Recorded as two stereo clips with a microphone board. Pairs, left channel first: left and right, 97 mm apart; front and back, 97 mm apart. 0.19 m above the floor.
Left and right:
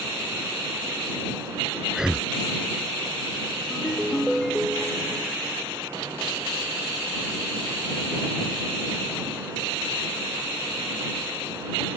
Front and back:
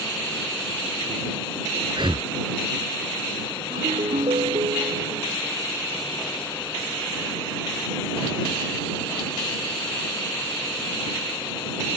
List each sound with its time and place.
1.9 s breathing: 170° right
3.7 s a ringtone: straight behind